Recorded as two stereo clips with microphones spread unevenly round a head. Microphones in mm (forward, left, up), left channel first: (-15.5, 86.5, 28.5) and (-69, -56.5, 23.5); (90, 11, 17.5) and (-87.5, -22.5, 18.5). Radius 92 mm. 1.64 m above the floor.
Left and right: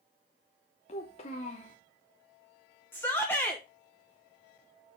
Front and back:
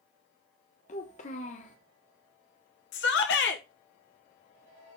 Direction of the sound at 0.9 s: 40° left.